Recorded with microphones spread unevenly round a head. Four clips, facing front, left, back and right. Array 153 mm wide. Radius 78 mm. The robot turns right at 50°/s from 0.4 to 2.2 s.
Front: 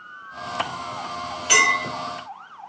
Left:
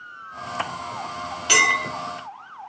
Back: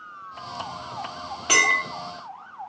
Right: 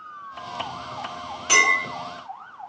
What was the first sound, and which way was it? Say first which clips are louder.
A clink: even, front 2 dB; 170° left.